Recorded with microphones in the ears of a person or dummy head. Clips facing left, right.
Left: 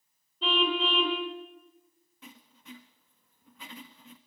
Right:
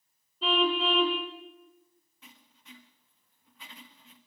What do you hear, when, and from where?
0.4 s a car horn: 10° right (ahead or behind), 3 m
2.2 s writing: 50° left (ahead or behind), 1.4 m